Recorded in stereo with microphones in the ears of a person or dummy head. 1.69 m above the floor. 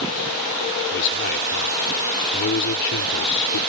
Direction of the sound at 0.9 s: 70° left (ahead or behind).